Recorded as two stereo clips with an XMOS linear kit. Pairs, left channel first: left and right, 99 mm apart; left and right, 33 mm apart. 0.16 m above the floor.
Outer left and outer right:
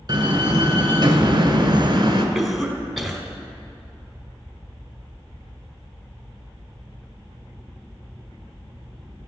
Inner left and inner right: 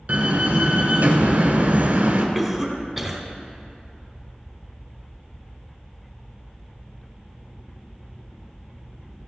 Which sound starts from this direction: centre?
A cough, at 2.4 s.